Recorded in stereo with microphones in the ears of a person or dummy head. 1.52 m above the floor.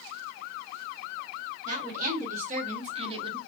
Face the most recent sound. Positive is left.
turn(degrees=-20)  # may be behind; listen again after turning